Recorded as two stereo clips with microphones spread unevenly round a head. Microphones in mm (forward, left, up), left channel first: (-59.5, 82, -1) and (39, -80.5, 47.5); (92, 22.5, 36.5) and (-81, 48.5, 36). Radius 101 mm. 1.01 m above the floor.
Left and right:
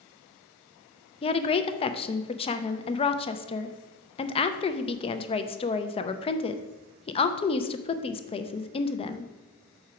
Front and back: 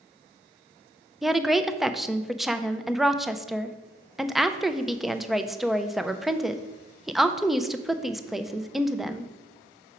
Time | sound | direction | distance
1.2 | a woman speaking | 85° left | 0.5 m